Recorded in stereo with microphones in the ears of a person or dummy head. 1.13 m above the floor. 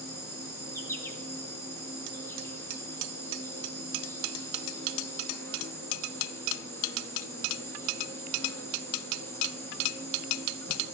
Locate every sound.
0.0 s an insect: 10° left (ahead or behind), 3 m